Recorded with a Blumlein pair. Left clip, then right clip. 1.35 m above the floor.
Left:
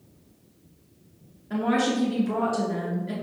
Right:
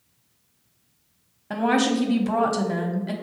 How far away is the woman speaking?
About 0.6 m.